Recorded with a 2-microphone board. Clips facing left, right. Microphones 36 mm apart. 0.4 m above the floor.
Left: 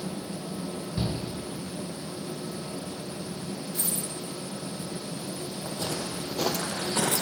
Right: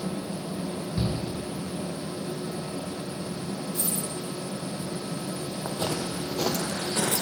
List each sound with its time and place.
1.0 s a shout: 10° left (ahead or behind), 1.4 m
3.7 s a dropped coin: 65° left (ahead or behind), 3 m
5.7 s footsteps: 40° right (ahead or behind), 1.0 m; by 7.2 s 40° left (ahead or behind), 1.1 m